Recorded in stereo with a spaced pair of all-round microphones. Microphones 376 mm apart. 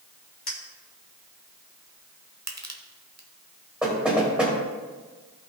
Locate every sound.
0.5 s a clink: 75° left (ahead or behind), 2 m
2.5 s crushing: 45° right (ahead or behind), 1.0 m
3.8 s knocking: centre (ahead or behind), 3 m